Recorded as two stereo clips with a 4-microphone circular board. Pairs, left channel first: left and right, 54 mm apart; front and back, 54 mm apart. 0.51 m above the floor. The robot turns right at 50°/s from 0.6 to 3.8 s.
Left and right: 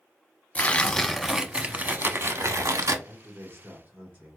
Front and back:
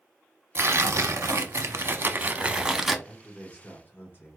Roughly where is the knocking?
I don't hear knocking.